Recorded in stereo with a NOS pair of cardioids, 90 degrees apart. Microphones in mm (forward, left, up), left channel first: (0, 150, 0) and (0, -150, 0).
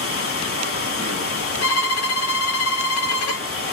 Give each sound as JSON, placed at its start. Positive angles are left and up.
{"t": 0.0, "sound": "running water", "azimuth_deg": 50, "distance_m": 1.1}
{"t": 1.6, "sound": "a violin", "azimuth_deg": 50, "distance_m": 0.7}